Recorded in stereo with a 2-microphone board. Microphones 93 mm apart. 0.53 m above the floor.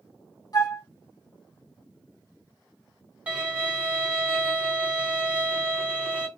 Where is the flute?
40° left (ahead or behind), 1.0 m.